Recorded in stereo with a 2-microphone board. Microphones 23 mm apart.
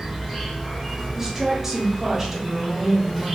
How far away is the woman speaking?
About 0.8 m.